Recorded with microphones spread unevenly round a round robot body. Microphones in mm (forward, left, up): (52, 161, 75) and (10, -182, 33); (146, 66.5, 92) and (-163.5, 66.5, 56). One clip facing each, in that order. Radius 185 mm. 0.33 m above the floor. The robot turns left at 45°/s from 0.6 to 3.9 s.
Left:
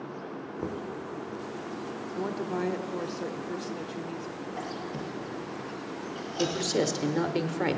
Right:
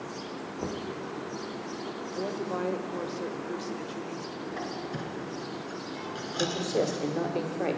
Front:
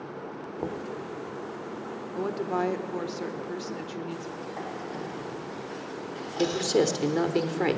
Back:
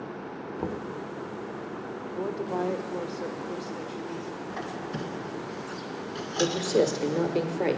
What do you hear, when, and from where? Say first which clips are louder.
0.6 s knocking: even, even; 165° right, 0.6 m; by 1.0 s 175° left, 0.6 m
2.1 s a woman speaking: left 1 dB, front 1 dB; 25° left, 1.0 m; by 4.4 s 50° right, 1.0 m
4.5 s a squeak: right 2 dB, back 1 dB; 150° right, 2.0 m
6.4 s a man speaking: left 1 dB, even; 55° left, 1.2 m